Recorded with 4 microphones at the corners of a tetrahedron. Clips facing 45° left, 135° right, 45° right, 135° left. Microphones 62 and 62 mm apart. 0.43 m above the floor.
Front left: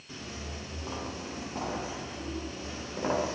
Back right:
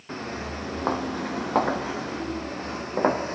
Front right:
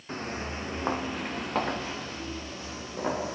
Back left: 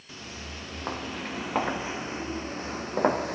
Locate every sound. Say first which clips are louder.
0.1 s footsteps: back right 9 dB, front right 7 dB; 100° right, 2.5 m; by 3.3 s 175° left, 3 m